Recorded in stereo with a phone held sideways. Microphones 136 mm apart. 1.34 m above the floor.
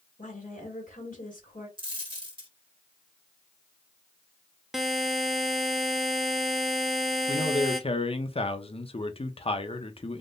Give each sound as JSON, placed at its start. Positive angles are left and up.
{"t": 0.2, "sound": "a woman speaking", "side_deg": 85, "distance_m": 1.9}
{"t": 1.8, "sound": "a dropped coin", "side_deg": -40, "distance_m": 1.1}
{"t": 4.7, "sound": "a buzzer", "side_deg": 0, "distance_m": 0.5}
{"t": 7.3, "sound": "a man speaking", "side_deg": 45, "distance_m": 0.6}